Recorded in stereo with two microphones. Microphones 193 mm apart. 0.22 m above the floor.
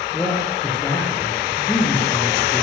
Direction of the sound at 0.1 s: 10° left (ahead or behind).